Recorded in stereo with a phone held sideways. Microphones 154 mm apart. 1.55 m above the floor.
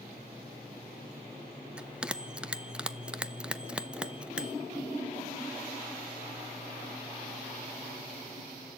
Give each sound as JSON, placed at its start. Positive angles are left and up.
{"t": 1.8, "sound": "a bell", "side_deg": -5, "distance_m": 0.7}